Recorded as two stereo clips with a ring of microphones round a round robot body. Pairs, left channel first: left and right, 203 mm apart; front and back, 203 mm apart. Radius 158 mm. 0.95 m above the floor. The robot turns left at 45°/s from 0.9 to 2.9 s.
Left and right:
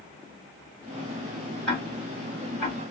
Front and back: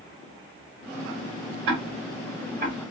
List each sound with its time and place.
1.7 s ticking: 175° left, 1.3 m; by 2.8 s 125° left, 1.3 m